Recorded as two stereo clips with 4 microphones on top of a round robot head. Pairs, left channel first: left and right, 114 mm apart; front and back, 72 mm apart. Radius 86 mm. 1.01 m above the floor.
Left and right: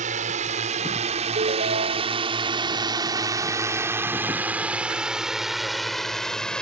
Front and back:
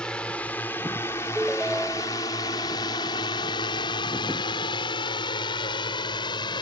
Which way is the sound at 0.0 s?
80° right.